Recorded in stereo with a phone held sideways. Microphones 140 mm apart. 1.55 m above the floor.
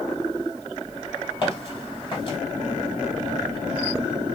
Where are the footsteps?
40° left (ahead or behind), 2.0 m.